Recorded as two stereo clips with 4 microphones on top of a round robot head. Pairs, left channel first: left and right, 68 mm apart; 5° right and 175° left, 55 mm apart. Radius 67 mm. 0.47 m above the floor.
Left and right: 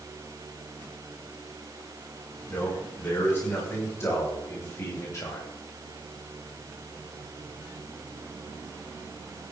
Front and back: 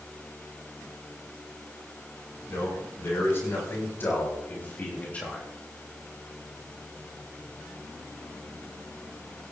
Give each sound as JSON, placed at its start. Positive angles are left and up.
{"t": 2.5, "sound": "a man speaking", "azimuth_deg": 30, "distance_m": 5.0}